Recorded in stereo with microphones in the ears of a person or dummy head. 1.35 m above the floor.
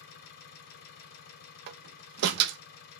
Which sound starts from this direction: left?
An engine running, at 0.0 s.